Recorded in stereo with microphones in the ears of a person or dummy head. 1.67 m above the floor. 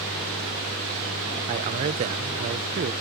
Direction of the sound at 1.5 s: 35° right (ahead or behind).